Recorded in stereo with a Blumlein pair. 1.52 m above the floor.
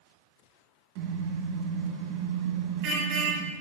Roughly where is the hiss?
No hiss in this recording.